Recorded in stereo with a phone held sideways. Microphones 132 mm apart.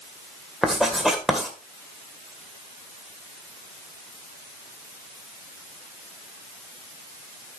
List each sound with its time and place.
0.6 s writing: centre (ahead or behind), 2 m